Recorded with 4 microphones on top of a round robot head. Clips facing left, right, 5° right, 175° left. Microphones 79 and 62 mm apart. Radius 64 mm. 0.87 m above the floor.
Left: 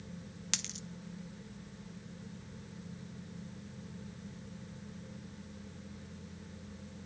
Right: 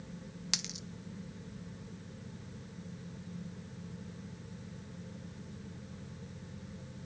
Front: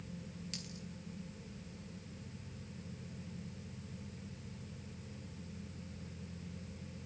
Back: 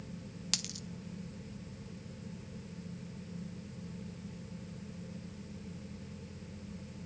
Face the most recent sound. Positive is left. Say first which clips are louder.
# left 1 dB, back 4 dB
turn(degrees=-170)